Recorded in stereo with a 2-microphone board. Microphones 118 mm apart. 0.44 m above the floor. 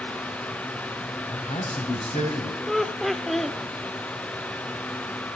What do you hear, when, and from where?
1.3 s a man speaking: 60° left (ahead or behind), 3 m
2.7 s laughter: centre (ahead or behind), 0.8 m